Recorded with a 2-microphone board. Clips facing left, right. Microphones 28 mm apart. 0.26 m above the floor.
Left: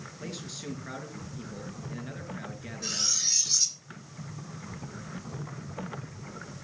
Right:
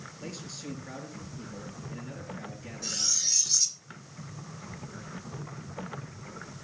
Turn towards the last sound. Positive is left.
turn(degrees=15)  # may be behind; listen again after turning